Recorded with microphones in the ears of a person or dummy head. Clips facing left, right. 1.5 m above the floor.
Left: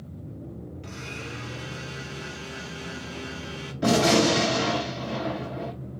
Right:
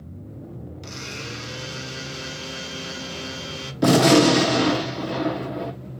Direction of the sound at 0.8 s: 50° right (ahead or behind).